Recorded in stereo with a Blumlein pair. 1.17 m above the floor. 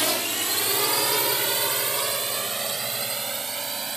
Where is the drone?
5° right; by 4.0 s 15° right.